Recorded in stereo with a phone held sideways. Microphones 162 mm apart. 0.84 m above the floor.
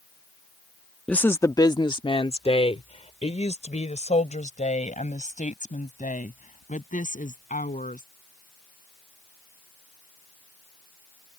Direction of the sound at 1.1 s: 10° left (ahead or behind).